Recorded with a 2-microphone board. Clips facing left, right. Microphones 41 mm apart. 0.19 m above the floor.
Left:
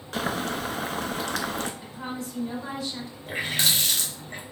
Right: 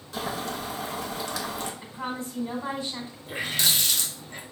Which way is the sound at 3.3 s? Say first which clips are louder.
Left 1 dB; 40° left (ahead or behind).